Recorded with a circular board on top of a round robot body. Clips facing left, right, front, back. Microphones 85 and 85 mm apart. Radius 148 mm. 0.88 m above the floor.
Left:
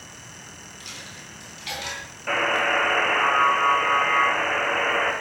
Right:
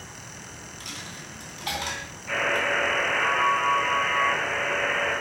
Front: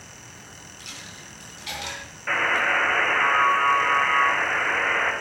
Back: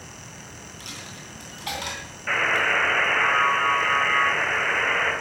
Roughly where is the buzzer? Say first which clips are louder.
Left 3 dB, even; left.